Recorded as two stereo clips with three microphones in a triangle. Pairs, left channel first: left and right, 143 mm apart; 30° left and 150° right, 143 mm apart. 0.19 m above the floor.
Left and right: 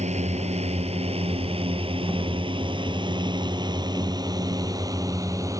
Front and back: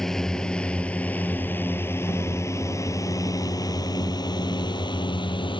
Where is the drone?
55° right; by 5.6 s 25° right.